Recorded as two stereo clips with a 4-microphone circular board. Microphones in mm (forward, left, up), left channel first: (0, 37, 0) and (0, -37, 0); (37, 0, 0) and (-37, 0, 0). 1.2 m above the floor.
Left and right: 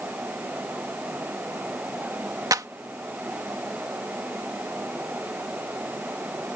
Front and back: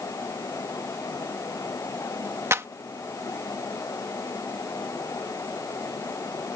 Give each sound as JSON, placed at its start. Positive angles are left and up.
{"t": 2.5, "sound": "a clap", "azimuth_deg": -130}